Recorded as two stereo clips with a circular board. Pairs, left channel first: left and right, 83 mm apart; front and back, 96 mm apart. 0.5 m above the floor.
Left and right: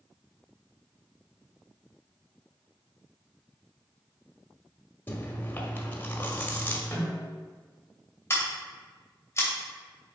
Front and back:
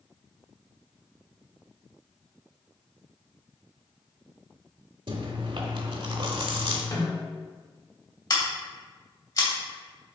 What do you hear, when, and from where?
5.1 s chewing: 155° left, 0.9 m
6.9 s a snare drum: 35° left, 1.8 m
8.3 s scissors: 35° left, 2.5 m